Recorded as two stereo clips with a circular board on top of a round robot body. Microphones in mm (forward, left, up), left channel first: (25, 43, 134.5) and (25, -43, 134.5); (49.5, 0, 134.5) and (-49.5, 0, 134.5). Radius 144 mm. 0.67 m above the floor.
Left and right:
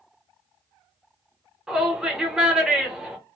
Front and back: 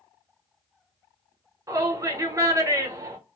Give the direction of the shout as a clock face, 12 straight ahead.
6 o'clock.